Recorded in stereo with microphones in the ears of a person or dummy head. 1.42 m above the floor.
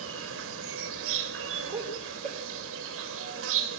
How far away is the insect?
About 3.5 m.